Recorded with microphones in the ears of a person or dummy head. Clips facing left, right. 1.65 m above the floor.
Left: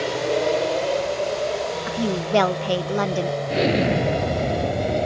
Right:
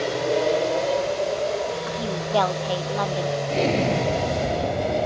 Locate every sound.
0.0 s an aircraft: 5° right (ahead or behind)
1.9 s a woman speaking: 30° left (ahead or behind)
3.5 s an explosion: 10° left (ahead or behind)